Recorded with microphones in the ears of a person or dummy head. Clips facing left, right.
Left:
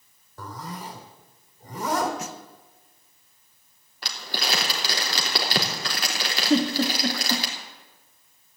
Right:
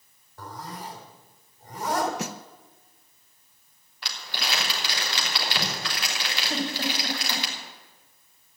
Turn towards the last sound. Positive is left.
turn(degrees=65)  # may be behind; listen again after turning